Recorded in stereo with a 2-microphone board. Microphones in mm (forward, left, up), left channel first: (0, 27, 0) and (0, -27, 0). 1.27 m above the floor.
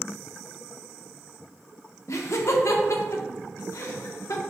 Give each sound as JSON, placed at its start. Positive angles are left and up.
{"t": 2.1, "sound": "laughter", "side_deg": 65, "distance_m": 0.8}